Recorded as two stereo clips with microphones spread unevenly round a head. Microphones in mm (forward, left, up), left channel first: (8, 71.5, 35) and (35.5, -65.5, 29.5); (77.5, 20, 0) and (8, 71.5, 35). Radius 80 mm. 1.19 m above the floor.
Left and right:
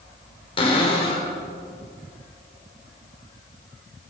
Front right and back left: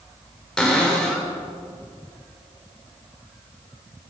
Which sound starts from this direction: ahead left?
A cupboard door, at 0.6 s.